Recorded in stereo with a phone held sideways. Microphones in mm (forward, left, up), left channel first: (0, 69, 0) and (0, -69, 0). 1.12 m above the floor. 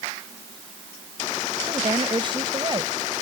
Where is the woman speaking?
35° right (ahead or behind).